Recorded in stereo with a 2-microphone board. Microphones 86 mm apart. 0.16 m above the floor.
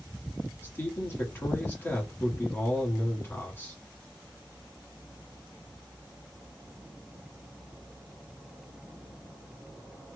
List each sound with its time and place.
0.6 s a man speaking: 25° left (ahead or behind), 1.4 m